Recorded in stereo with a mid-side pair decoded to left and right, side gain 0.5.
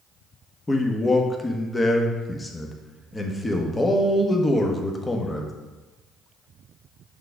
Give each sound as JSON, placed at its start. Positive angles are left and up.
{"t": 0.7, "sound": "a man speaking", "azimuth_deg": 15, "distance_m": 1.1}